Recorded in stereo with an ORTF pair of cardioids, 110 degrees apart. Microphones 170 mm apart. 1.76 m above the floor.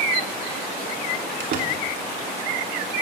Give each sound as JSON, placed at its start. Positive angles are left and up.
{"t": 1.4, "sound": "a door slam", "azimuth_deg": -60, "distance_m": 3.0}